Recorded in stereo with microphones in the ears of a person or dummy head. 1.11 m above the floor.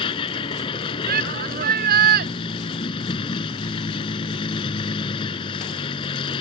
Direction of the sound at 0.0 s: 30° left (ahead or behind).